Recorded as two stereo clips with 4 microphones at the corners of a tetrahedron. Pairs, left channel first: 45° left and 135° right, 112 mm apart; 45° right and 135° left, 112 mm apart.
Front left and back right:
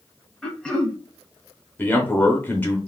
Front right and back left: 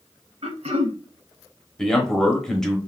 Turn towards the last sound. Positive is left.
turn(degrees=25)